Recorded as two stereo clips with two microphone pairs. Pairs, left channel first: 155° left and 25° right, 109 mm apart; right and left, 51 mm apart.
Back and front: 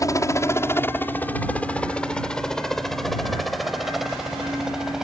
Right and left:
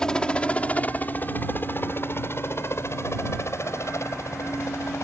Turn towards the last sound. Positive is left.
turn(degrees=-110)